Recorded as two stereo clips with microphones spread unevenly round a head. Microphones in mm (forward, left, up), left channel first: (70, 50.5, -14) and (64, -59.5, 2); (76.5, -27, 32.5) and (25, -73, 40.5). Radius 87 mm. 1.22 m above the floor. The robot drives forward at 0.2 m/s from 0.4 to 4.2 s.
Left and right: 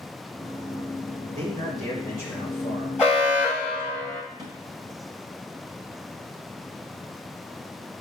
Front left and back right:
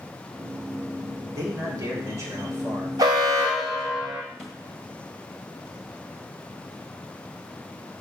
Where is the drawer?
45° right, 2.5 m.